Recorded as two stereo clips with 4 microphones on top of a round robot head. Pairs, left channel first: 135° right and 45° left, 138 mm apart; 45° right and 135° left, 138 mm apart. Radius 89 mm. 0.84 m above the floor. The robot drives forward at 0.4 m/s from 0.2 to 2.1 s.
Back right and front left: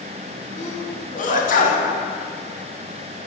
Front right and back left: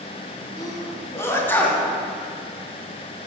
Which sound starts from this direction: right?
A sneeze, at 0.6 s.